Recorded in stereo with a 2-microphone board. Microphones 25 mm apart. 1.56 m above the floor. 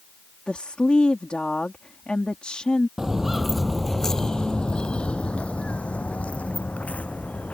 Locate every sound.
0.5 s a woman speaking: 40° left (ahead or behind)
3.0 s footsteps: 20° right (ahead or behind); by 7.5 s 70° left (ahead or behind)